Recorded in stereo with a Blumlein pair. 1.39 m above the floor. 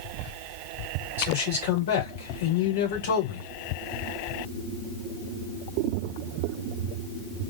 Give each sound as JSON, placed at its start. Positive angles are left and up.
{"t": 1.2, "sound": "a man speaking", "azimuth_deg": 60, "distance_m": 3.5}